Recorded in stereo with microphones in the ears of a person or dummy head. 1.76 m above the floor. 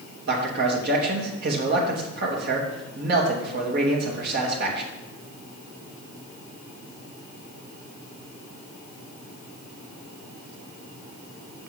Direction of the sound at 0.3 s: 50° right (ahead or behind).